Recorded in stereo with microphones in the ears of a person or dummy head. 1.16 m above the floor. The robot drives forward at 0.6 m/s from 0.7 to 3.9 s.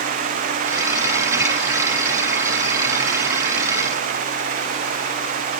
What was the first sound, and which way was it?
Only background noise.